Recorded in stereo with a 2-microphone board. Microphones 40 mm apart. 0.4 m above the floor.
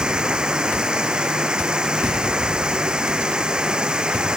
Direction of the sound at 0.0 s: 20° right (ahead or behind).